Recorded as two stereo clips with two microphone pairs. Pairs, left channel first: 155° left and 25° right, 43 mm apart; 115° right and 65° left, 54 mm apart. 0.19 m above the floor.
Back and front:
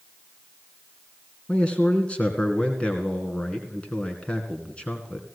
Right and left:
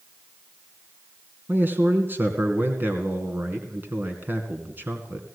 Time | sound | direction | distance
1.5 | a man speaking | 105° left | 2.5 m